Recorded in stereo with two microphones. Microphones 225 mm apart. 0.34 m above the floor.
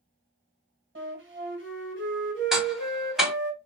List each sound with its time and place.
0.9 s a flute: 60° right (ahead or behind), 2 m
2.5 s ticking: centre (ahead or behind), 1.3 m